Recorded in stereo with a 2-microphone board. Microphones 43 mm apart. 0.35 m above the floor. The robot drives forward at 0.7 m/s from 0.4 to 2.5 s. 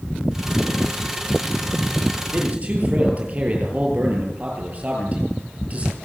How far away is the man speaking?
About 8.5 m.